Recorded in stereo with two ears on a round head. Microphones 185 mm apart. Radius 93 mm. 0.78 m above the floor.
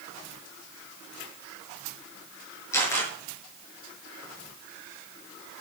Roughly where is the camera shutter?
Centre.